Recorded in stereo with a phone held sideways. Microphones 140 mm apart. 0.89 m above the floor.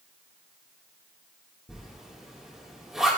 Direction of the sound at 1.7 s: 5° right (ahead or behind).